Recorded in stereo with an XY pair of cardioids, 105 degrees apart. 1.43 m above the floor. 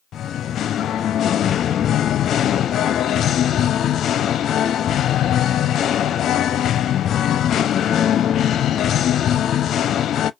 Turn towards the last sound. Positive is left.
turn(degrees=60)